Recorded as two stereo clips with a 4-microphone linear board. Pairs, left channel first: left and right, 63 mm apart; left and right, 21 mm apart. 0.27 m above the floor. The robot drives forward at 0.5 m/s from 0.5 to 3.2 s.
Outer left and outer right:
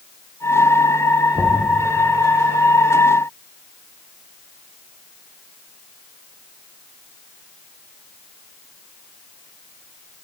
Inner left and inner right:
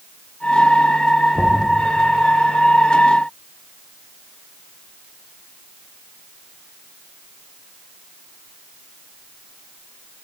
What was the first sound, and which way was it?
Knocking, 30° right (ahead or behind).